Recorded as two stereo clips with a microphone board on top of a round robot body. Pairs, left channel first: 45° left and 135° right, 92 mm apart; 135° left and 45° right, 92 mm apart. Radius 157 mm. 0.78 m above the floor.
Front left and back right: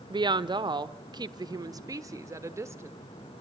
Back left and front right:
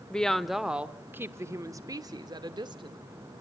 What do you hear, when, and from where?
0.1 s a woman speaking: 150° right, 1.1 m; by 3.0 s 75° right, 1.8 m